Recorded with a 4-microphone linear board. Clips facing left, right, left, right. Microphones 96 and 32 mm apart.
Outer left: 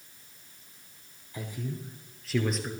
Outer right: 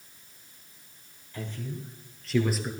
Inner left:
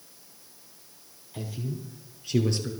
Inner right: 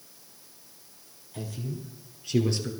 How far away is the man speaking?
About 4 m.